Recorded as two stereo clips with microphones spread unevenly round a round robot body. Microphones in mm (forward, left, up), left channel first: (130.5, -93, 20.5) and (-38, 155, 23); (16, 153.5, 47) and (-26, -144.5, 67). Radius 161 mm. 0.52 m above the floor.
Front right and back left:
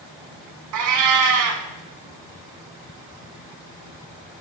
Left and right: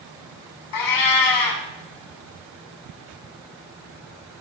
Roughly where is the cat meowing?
Left.